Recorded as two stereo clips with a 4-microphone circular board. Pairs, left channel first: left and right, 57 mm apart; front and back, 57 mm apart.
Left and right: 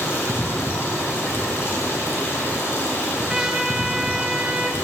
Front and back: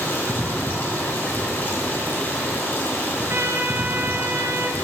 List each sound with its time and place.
0.0 s running water: 50° left, 1.9 m
3.3 s a trumpet: 170° right, 0.6 m